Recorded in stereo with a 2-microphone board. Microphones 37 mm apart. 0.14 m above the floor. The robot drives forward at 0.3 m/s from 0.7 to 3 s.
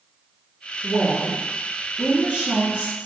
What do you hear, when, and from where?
0.8 s a woman speaking: 30° right (ahead or behind), 1.9 m